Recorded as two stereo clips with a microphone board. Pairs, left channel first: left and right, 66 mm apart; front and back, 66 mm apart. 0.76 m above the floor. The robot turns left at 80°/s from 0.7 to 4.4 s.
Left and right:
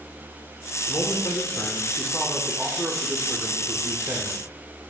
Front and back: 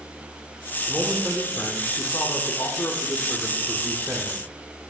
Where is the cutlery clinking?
No cutlery clinking in this recording.